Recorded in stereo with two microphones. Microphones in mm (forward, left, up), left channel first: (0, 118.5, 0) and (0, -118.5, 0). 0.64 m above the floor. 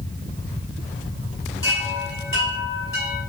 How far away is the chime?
About 4 m.